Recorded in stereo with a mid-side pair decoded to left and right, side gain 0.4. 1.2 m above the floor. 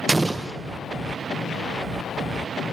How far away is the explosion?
About 0.7 m.